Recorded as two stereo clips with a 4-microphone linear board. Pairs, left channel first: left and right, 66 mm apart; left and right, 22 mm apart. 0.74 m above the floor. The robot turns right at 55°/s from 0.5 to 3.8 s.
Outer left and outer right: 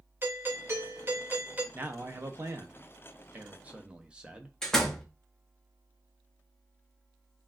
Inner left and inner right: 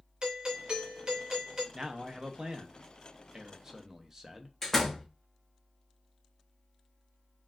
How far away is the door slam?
About 0.8 m.